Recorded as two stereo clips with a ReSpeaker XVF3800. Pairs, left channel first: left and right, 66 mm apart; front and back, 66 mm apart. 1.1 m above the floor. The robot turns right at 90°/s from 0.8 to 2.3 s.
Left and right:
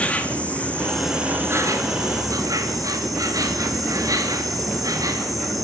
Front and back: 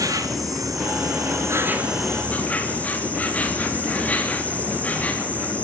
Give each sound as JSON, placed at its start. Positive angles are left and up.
{"t": 0.0, "sound": "an insect", "azimuth_deg": 160, "distance_m": 3.0}